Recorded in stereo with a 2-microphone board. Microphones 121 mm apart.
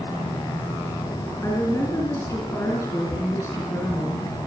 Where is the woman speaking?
20° left (ahead or behind), 5 m.